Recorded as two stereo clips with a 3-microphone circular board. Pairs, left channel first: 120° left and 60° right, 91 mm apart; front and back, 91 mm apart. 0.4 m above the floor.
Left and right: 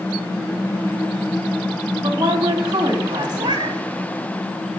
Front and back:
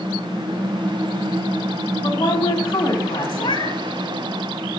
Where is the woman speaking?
25° right, 3 m.